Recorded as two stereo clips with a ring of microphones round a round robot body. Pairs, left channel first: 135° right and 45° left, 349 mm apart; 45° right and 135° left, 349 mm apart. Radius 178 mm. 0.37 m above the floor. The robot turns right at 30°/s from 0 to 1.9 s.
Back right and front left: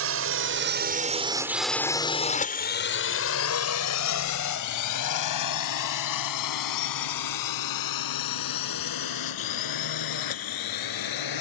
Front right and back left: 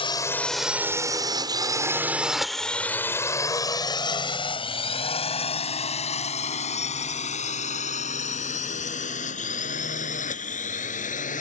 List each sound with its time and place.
0.0 s a drone: 25° left; by 11.4 s 115° right